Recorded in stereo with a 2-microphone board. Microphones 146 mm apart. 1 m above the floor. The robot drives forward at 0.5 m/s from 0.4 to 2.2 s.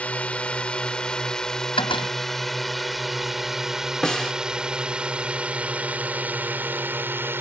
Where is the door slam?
35° left (ahead or behind).